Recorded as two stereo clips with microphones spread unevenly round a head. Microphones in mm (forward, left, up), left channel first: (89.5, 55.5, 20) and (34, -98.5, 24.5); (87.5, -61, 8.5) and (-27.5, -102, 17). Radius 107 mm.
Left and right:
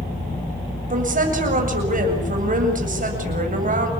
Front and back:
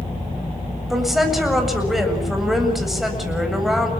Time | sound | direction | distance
0.9 | a woman speaking | 75° right | 7.5 m